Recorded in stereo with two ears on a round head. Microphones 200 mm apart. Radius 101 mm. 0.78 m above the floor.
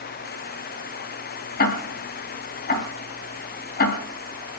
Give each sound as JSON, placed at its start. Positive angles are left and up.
{"t": 1.6, "sound": "ticking", "side_deg": 40, "distance_m": 3.5}